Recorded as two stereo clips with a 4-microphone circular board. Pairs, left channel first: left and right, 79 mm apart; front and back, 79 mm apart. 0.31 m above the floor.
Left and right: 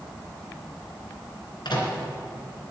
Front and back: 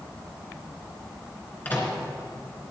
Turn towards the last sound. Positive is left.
turn(degrees=70)